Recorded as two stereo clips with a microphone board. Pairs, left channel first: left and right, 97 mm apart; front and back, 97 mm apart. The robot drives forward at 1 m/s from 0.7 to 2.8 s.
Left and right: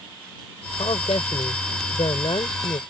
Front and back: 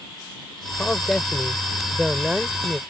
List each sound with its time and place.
0.8 s a man speaking: 80° left; by 2.8 s 105° left